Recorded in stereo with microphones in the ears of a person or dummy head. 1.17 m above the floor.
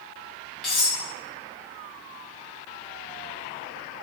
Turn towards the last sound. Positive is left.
turn(degrees=5)  # may be behind; listen again after turning